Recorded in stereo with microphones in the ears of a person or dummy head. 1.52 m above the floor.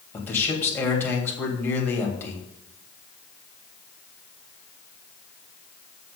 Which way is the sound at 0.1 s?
15° left (ahead or behind).